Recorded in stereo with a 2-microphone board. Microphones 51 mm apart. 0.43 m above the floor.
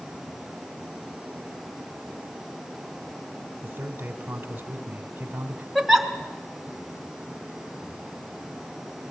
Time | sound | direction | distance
3.6 | a man speaking | 45° right (ahead or behind) | 1.7 m
5.8 | a giggle | centre (ahead or behind) | 1.8 m